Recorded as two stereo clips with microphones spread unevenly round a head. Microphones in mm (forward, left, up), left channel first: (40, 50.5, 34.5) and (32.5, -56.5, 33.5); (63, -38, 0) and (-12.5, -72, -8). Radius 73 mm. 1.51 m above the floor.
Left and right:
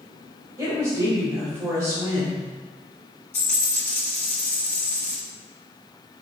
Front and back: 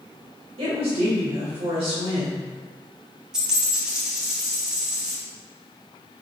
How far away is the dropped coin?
About 1.0 m.